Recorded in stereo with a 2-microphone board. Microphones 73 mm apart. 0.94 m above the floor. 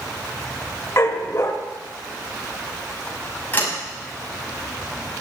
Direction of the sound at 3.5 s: 25° left (ahead or behind).